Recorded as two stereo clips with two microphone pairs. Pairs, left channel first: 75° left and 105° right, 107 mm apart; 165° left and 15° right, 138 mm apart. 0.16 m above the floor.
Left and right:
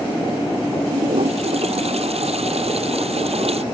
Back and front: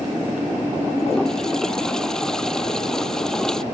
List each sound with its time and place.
0.9 s a toilet flushing: 110° right